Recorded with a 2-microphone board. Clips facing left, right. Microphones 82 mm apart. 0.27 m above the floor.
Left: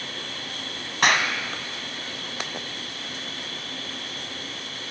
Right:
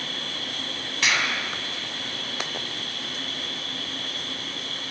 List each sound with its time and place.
0.0 s an insect: 60° right (ahead or behind), 4.5 m
1.0 s a clap: 50° left (ahead or behind), 1.9 m